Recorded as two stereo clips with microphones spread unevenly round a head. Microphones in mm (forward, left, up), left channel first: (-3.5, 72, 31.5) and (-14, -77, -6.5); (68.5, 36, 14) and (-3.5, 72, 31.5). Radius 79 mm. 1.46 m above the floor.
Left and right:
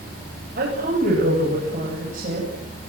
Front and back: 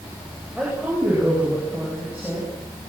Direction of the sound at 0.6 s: 125° right.